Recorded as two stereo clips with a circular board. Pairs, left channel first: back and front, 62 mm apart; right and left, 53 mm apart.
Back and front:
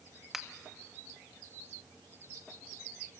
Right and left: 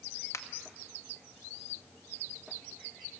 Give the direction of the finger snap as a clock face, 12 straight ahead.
3 o'clock.